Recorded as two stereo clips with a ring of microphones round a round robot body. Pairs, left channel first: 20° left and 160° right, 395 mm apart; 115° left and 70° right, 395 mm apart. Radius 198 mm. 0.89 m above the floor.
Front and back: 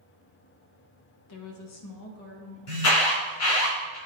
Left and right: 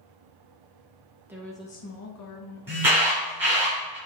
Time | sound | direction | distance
1.3 | a woman speaking | 15° left | 1.1 m
2.7 | an alarm | 20° left | 4 m